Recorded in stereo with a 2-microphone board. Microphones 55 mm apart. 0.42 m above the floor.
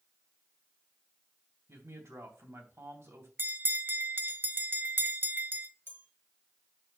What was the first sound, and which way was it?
A man speaking, 60° right (ahead or behind).